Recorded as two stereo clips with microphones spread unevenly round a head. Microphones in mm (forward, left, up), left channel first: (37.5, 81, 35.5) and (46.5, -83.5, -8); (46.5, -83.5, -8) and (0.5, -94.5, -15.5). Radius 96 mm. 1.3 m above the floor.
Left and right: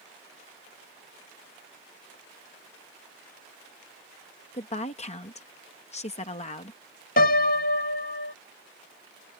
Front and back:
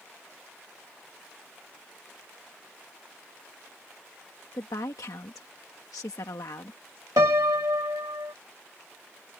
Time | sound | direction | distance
4.5 | a woman speaking | 40° left | ?
7.2 | a piano | 140° left | ?